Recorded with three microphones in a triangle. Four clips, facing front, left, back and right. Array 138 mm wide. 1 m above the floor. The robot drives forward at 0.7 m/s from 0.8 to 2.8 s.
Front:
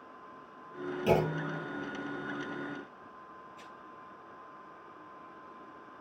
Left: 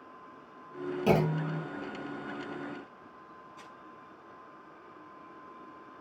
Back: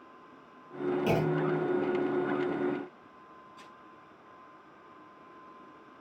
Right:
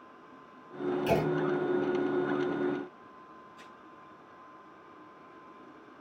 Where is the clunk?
90° left, 5.5 m; by 1.6 s 95° left, 5.5 m.